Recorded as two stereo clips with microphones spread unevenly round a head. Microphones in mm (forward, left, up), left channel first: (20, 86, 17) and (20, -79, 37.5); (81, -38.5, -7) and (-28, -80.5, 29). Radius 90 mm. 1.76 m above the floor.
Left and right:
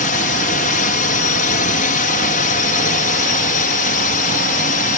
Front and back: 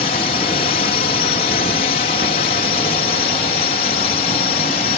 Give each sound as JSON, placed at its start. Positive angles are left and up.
{"t": 0.0, "sound": "a drone", "azimuth_deg": 55}